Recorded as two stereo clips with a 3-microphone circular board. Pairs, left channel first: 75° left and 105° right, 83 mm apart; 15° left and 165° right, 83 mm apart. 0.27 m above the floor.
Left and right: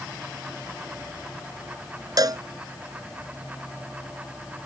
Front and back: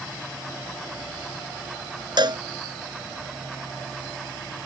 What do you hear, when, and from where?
2.2 s a cowbell: 140° right